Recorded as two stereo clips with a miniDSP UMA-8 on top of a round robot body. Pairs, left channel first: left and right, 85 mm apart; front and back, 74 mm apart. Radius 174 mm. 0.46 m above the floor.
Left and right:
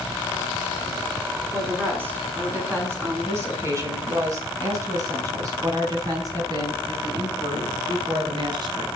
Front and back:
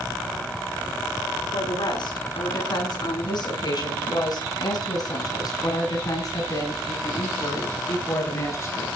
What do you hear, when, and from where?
1.5 s a woman speaking: 25° right, 7 m; by 8.9 s 55° right, 6.5 m